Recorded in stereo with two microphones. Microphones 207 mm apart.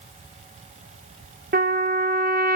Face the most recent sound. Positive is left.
turn(degrees=-50)  # may be behind; listen again after turning